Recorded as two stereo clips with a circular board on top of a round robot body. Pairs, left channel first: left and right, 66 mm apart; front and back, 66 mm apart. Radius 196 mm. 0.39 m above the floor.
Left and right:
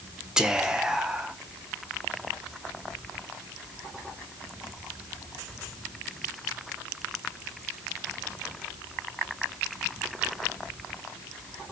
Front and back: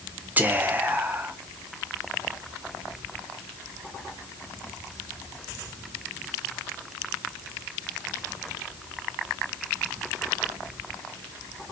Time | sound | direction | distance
0.4 | whispering | 160° right | 0.8 m